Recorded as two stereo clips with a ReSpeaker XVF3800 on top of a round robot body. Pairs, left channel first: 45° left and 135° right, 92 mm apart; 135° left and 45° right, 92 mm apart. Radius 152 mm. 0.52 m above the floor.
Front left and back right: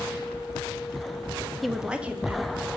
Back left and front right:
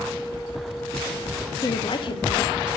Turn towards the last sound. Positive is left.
turn(degrees=155)